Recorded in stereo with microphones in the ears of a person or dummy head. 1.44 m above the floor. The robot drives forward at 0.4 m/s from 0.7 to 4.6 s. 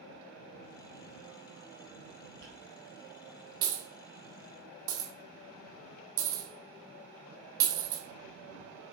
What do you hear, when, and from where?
2.4 s a dropped coin: 25° right (ahead or behind), 1.1 m; by 8.9 s 15° right (ahead or behind), 1.8 m